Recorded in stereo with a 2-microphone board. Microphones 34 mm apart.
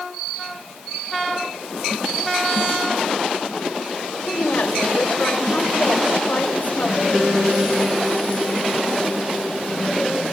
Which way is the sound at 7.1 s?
15° right (ahead or behind).